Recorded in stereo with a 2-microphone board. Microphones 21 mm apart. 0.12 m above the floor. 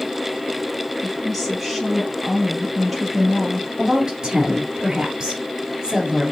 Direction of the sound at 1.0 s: Centre (ahead or behind).